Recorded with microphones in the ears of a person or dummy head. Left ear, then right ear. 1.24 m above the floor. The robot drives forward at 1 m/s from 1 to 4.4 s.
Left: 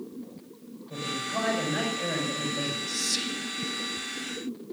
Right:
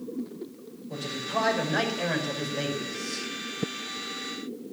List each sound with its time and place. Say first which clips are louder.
0.9 s a man speaking: right 1 dB; 25° right (ahead or behind), 6.5 m; by 2.8 s 30° right (ahead or behind), 4.5 m
2.9 s whispering: left 4 dB; 45° left (ahead or behind), 3 m; by 3.5 s 55° left (ahead or behind), 2.5 m